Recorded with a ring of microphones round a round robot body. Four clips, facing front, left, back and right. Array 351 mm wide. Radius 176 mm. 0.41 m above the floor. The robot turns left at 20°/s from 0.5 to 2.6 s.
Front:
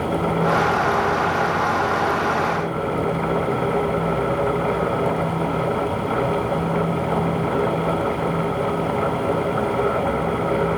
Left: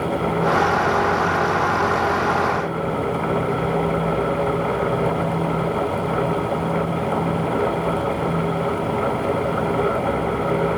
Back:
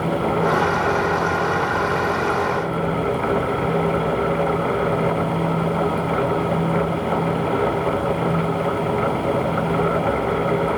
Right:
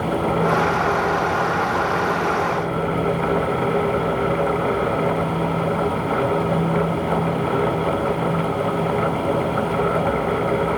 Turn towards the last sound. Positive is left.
No sound to turn to.